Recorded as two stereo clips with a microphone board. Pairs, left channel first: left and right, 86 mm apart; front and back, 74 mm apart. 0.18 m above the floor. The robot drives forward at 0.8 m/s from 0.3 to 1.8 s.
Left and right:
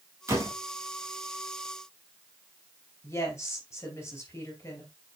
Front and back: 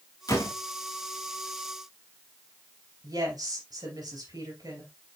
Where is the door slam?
35° right, 3 m.